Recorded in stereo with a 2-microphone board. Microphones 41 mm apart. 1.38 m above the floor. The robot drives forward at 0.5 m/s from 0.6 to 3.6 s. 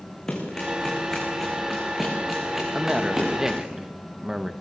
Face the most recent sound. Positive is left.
turn(degrees=-10)  # may be behind; listen again after turning